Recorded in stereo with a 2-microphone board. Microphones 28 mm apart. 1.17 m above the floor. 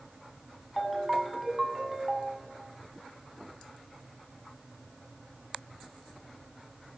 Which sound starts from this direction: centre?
A ringtone, at 0.8 s.